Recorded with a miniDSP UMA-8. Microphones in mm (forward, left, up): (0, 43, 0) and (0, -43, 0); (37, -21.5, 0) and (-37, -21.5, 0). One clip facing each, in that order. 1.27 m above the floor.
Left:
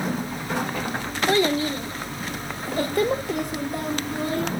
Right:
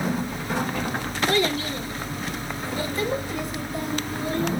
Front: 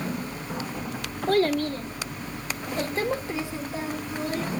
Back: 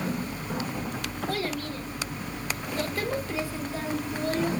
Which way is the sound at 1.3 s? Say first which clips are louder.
Left 4 dB, front 11 dB; 25° left.